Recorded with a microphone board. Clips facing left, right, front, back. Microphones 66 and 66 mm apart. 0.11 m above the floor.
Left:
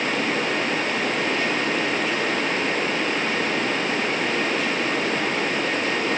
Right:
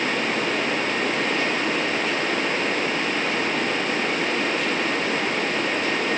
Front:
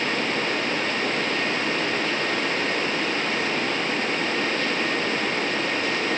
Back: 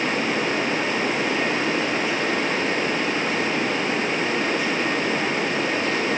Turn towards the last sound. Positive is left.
No sound to turn to.